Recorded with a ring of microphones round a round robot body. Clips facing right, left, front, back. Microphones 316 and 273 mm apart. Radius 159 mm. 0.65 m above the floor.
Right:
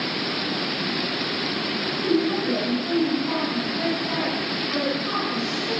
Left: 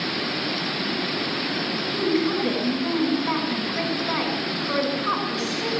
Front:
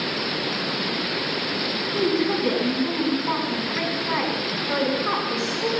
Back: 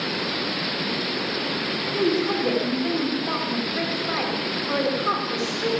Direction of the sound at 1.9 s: 70° left.